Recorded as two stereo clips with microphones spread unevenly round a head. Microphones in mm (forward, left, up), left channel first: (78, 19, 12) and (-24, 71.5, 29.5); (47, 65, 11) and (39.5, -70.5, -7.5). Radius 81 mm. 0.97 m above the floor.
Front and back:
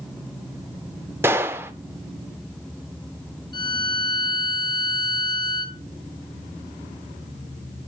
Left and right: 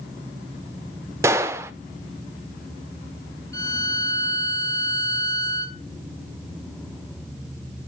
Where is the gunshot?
165° right, 0.6 m.